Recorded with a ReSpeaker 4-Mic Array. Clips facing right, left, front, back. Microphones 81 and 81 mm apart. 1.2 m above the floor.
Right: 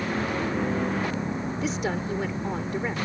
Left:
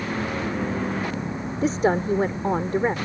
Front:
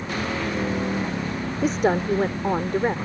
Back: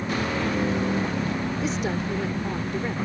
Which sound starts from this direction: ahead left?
A woman speaking, at 1.6 s.